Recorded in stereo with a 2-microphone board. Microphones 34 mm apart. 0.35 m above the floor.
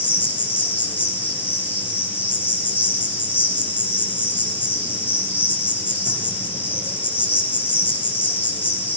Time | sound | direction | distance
0.0 | an insect | 85° left | 3 m